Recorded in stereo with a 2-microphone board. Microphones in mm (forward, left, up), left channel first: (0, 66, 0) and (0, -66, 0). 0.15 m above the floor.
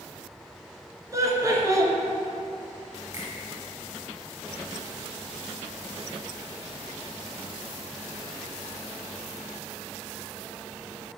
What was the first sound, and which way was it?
Laughter, 25° right (ahead or behind).